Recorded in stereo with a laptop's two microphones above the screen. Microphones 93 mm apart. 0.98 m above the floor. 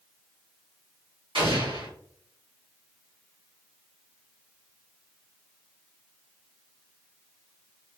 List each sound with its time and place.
1.4 s an explosion: 75° right (ahead or behind), 1.9 m